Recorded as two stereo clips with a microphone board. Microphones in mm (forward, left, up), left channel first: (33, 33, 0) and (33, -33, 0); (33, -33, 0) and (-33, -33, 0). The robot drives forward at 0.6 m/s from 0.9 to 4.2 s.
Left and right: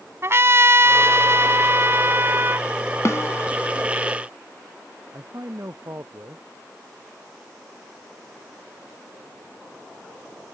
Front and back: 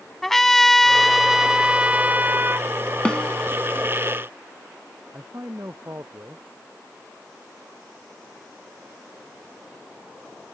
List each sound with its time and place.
0.2 s a trumpet: 80° right; by 2.7 s 135° right
3.0 s a snare drum: 70° left; by 3.5 s 80° left
5.1 s a man speaking: 135° right